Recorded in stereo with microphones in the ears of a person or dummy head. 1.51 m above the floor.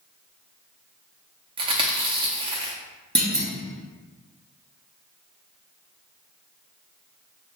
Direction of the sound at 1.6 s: 30° right (ahead or behind).